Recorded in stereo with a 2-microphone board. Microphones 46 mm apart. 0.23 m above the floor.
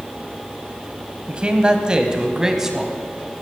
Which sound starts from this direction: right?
A man speaking, at 1.3 s.